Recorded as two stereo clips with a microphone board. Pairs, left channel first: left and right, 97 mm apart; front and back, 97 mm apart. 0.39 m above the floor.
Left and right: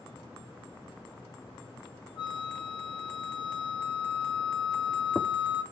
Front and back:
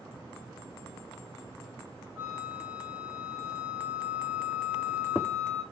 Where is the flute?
105° left, 2 m.